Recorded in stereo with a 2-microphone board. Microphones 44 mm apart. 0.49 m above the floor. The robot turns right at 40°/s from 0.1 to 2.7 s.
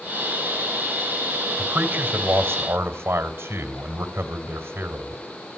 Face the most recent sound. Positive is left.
turn(degrees=-110)